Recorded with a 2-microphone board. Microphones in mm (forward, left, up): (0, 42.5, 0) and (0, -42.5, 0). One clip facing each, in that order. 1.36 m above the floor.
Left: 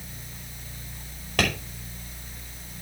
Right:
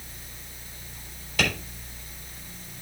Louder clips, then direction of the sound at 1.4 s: Left 1 dB; 65° left (ahead or behind).